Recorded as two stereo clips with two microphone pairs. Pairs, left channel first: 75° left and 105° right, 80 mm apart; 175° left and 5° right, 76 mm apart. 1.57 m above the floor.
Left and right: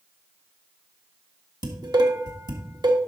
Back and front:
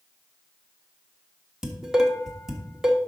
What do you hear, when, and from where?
1.6 s dishes clattering: 85° right, 1.5 m